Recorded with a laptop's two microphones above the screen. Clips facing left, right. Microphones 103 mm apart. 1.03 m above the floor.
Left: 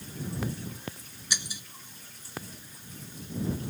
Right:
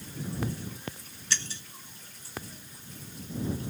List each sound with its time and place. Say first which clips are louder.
1.3 s breaking glass: right 1 dB; 15° left (ahead or behind)